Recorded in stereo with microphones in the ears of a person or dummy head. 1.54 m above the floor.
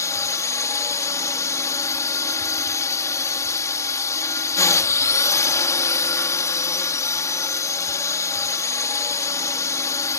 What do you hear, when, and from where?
0.0 s a drone: 15° left (ahead or behind)